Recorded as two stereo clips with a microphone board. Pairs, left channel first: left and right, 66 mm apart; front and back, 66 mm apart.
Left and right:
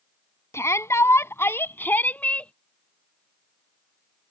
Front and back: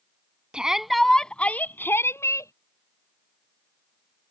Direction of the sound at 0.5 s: 110° left.